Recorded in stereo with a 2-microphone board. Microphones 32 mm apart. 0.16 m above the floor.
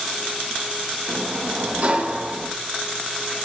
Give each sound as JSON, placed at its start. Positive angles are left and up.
{"t": 1.1, "sound": "a sliding door", "side_deg": -50, "distance_m": 5.0}